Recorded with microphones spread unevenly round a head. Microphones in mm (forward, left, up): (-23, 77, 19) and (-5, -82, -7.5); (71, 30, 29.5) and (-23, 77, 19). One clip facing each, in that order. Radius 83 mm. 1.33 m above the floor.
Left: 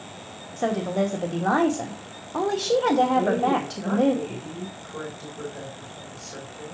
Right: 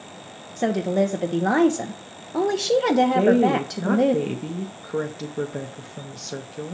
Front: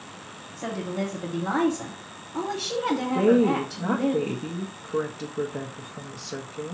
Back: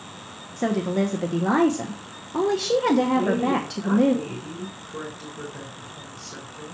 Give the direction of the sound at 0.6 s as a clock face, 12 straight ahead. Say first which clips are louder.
Right 3 dB, back 7 dB; 5 o'clock.